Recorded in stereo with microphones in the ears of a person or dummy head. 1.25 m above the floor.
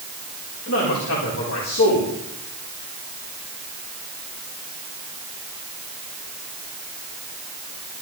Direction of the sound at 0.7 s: 80° left.